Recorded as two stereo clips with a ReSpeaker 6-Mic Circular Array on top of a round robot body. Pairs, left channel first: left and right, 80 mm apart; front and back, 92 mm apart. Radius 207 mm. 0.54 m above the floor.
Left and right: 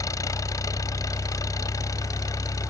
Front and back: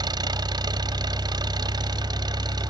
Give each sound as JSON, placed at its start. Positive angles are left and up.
{"t": 0.0, "sound": "an engine running", "azimuth_deg": 135}